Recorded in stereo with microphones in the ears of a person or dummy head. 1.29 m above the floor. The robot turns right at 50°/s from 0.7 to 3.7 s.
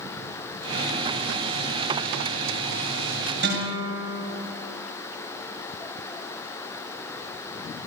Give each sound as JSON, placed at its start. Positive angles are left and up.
{"t": 3.4, "sound": "a guitar", "side_deg": -55, "distance_m": 7.5}